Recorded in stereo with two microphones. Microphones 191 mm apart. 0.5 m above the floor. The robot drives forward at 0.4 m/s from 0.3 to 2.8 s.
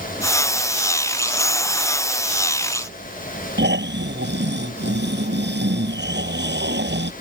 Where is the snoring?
65° right (ahead or behind).